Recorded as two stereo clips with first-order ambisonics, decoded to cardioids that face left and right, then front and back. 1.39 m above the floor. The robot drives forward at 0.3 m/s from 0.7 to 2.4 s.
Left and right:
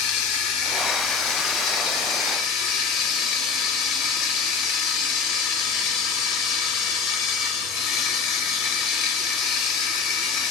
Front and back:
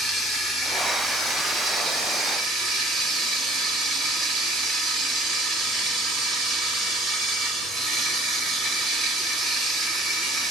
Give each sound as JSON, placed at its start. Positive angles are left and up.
{"t": 0.0, "sound": "running water", "azimuth_deg": 95, "distance_m": 1.4}